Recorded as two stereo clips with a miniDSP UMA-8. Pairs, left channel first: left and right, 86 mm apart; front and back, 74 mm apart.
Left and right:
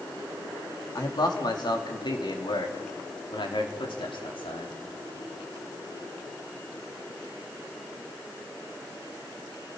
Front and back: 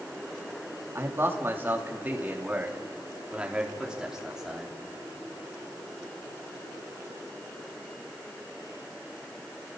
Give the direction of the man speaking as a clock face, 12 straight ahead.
8 o'clock.